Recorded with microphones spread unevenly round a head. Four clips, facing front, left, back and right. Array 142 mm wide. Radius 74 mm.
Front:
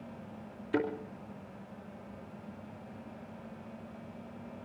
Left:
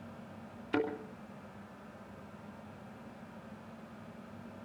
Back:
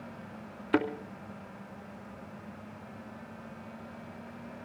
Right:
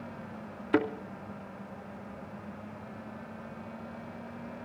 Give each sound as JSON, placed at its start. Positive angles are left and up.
{"t": 0.7, "sound": "a thud", "azimuth_deg": -170, "distance_m": 2.5}